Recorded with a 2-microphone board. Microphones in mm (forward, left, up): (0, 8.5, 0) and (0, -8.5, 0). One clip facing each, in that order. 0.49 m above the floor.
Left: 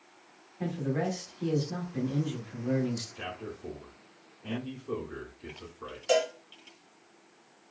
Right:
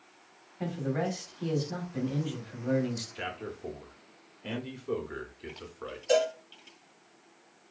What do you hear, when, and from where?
0.6 s a man speaking: 20° right (ahead or behind), 0.9 m
3.1 s a man speaking: 40° right (ahead or behind), 0.8 m
6.1 s a cowbell: 55° left (ahead or behind), 1.2 m